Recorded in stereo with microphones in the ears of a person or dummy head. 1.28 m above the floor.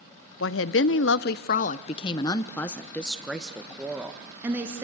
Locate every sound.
0.4 s a woman speaking: 65° left (ahead or behind), 0.9 m; by 4.8 s 15° right (ahead or behind), 1.9 m